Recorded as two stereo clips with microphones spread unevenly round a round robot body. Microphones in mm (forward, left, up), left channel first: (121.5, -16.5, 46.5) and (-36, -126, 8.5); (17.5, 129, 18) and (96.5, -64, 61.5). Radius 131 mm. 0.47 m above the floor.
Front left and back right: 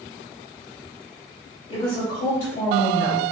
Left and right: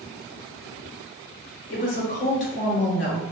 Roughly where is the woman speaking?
Left.